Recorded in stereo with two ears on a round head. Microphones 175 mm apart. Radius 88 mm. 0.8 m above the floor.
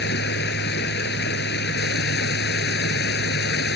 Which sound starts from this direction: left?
Running water, at 0.0 s.